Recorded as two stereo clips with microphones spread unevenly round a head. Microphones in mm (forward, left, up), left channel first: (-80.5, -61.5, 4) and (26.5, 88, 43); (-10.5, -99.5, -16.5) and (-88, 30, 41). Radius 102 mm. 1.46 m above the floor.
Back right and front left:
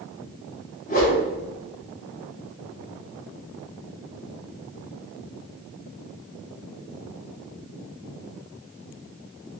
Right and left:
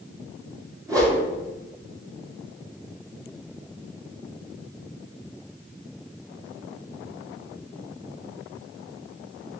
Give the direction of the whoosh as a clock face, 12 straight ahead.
6 o'clock.